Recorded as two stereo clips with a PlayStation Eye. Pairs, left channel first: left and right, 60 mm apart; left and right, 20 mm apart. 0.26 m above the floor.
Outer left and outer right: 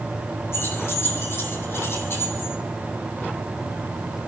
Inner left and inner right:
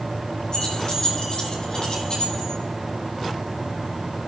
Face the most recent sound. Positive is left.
turn(degrees=40)  # may be behind; listen again after turning